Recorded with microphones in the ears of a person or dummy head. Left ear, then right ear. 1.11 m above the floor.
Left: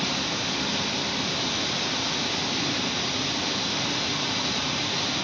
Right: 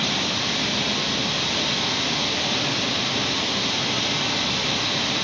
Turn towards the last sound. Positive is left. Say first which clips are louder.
# right 4 dB
turn(degrees=70)  # may be behind; listen again after turning